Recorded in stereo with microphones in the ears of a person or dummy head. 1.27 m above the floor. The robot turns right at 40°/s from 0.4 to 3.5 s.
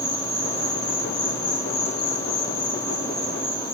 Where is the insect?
35° left, 0.9 m; by 3.8 s 160° left, 0.9 m.